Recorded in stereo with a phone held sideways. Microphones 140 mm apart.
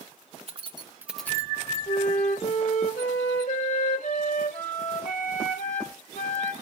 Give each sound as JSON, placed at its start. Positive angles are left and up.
{"t": 0.5, "sound": "keys jangling", "side_deg": -50, "distance_m": 1.1}
{"t": 1.9, "sound": "a flute", "side_deg": 65, "distance_m": 1.9}